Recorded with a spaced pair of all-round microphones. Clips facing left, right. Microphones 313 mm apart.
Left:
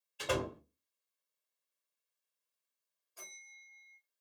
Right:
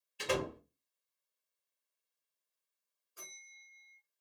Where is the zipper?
No zipper in this recording.